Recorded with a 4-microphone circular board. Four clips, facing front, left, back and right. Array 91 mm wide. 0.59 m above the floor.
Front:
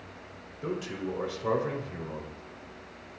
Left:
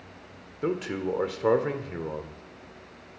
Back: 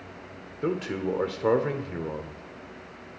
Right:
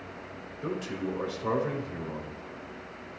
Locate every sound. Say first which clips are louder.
0.6 s a man speaking: left 5 dB, back 5 dB; 125° left, 1.4 m